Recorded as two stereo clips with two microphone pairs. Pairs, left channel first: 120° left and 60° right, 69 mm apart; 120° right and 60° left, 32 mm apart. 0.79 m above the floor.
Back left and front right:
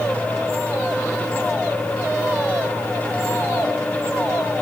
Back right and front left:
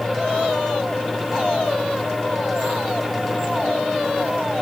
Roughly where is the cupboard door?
I don't hear a cupboard door.